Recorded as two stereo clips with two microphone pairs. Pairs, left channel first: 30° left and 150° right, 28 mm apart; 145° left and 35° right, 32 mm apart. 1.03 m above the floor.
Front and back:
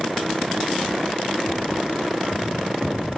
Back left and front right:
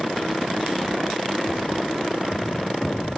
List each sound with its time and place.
1.5 s tapping: 130° right, 3 m